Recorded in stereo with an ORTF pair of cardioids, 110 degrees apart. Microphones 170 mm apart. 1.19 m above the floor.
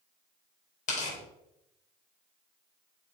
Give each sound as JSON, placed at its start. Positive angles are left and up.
{"t": 0.9, "sound": "tearing paper", "azimuth_deg": 45, "distance_m": 3.0}